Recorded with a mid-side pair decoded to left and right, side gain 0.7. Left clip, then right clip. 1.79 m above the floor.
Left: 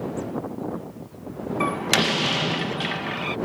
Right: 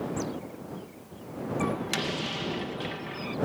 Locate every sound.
1.6 s a door slam: 45° left